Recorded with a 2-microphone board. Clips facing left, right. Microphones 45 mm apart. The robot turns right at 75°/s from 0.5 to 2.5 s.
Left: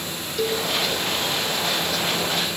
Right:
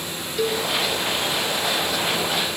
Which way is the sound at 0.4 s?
10° right (ahead or behind).